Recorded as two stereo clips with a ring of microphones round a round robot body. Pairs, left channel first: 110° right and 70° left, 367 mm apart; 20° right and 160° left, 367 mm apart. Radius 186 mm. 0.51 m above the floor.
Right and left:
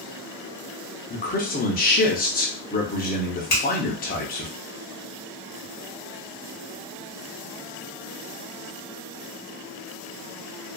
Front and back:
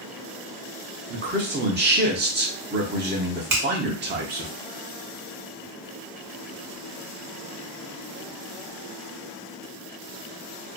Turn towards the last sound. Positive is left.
turn(degrees=-175)